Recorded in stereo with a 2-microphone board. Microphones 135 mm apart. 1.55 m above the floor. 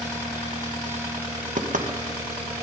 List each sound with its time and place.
1.6 s knocking: 70° right (ahead or behind), 1.6 m